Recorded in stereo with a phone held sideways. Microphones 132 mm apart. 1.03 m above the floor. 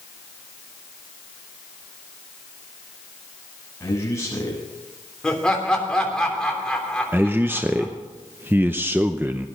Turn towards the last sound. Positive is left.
turn(degrees=-15)  # may be behind; listen again after turning